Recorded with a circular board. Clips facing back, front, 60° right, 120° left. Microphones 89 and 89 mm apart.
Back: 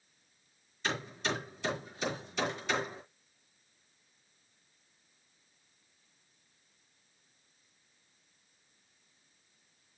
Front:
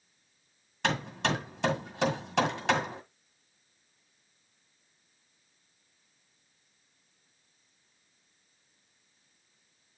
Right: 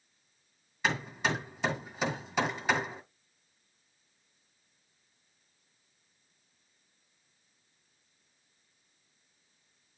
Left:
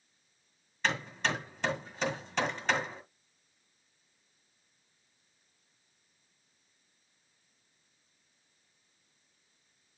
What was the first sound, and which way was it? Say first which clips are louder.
Hammering: front 5 dB, right 1 dB; 25° left.